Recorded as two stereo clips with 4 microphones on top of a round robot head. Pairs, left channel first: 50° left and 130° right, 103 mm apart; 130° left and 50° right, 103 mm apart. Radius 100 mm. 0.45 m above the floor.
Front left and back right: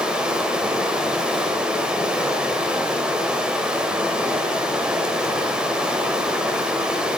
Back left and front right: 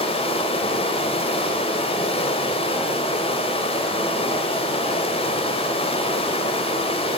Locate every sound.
0.0 s running water: 150° left, 2.5 m